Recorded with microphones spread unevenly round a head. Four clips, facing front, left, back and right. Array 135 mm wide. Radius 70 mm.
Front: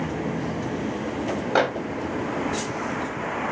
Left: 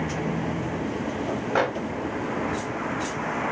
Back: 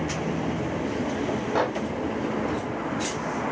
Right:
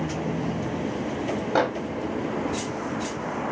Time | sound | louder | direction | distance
1.6 | a microwave | right 1 dB, front 4 dB | 20° left | 0.8 m